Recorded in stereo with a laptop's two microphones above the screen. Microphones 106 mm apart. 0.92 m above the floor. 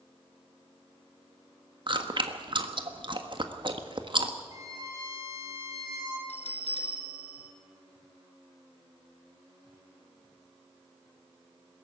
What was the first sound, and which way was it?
Chewing, 50° right (ahead or behind).